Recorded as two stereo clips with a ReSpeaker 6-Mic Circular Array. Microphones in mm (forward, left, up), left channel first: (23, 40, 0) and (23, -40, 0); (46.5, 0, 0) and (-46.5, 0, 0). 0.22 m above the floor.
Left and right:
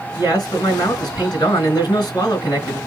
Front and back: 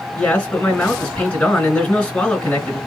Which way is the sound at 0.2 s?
70° left.